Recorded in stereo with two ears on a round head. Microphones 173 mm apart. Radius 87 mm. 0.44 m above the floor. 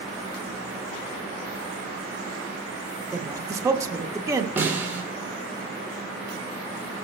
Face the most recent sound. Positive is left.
turn(degrees=-10)  # may be behind; listen again after turning